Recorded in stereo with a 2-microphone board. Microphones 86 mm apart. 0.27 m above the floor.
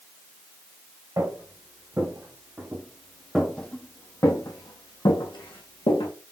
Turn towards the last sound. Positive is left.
turn(degrees=80)